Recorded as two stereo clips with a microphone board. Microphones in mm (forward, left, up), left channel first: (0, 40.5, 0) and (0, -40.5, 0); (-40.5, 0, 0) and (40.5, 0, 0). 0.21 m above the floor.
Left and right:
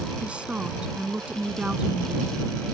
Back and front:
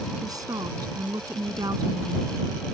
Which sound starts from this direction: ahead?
A woman speaking, at 0.2 s.